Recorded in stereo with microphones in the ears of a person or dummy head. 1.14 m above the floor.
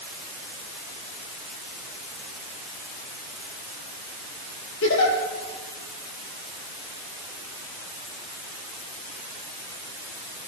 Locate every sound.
4.8 s a giggle: 75° left (ahead or behind), 5 m